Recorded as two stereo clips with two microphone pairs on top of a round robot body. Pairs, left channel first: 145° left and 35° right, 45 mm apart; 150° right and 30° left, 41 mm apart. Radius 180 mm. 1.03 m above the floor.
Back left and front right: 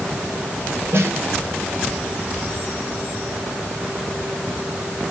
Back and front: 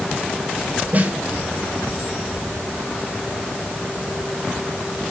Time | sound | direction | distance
0.9 | a snare drum | 25° right | 6 m